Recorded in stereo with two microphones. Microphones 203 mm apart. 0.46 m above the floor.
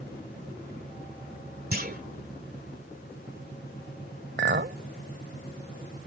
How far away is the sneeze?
I don't hear a sneeze.